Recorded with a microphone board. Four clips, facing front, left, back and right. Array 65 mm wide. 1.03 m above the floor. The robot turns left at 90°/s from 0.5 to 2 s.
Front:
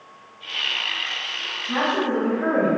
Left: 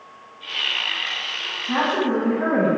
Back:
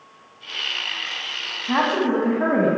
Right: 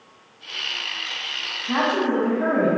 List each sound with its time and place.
1.7 s a woman speaking: 165° right, 0.8 m; by 2.7 s 165° left, 0.8 m